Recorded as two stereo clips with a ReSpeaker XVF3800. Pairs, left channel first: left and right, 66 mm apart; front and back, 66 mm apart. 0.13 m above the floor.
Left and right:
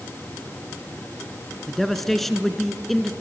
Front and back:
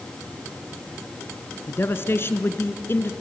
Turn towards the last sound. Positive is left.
turn(degrees=5)